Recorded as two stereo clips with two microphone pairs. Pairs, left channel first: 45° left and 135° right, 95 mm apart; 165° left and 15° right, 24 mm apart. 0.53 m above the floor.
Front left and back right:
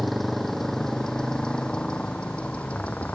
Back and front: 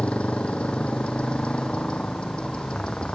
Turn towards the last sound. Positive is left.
turn(degrees=120)